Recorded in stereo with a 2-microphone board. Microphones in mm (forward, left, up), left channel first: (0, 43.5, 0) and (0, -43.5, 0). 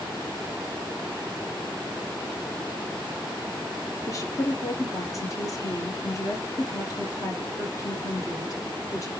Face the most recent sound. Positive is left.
turn(degrees=40)  # may be behind; listen again after turning